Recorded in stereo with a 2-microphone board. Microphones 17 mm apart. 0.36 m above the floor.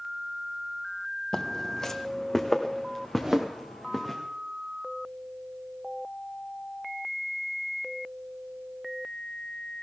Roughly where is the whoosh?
Right.